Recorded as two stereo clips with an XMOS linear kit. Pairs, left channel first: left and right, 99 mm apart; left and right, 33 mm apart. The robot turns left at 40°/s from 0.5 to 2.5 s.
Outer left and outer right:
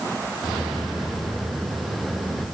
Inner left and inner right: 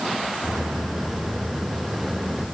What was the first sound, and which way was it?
Only background noise.